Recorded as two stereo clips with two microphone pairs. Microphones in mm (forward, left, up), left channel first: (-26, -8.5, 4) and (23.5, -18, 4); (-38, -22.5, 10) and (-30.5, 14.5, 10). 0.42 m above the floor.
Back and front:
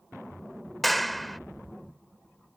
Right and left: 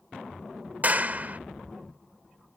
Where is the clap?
80° left.